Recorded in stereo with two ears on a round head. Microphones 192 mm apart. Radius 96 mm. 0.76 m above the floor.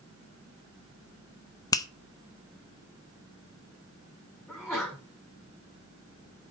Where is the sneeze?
10° left (ahead or behind), 6 m.